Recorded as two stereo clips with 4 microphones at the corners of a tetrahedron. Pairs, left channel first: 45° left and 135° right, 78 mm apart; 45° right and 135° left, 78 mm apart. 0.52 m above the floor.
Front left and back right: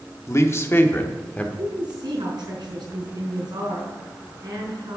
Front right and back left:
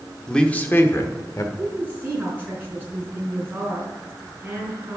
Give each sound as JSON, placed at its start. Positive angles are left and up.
{"t": 0.3, "sound": "a man speaking", "azimuth_deg": 30, "distance_m": 0.9}
{"t": 1.6, "sound": "a woman speaking", "azimuth_deg": -160, "distance_m": 5.0}